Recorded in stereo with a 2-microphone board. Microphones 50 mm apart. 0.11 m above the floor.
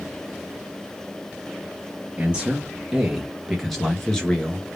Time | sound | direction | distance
2.2 | a man speaking | 25° right (ahead or behind) | 2.5 m